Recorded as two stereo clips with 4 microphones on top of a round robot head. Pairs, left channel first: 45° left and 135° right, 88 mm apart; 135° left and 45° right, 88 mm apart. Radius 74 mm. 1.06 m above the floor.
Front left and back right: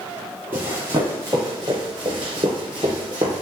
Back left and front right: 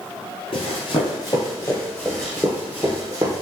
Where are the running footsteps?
155° left, 1.4 m; by 3.4 s 95° right, 1.4 m.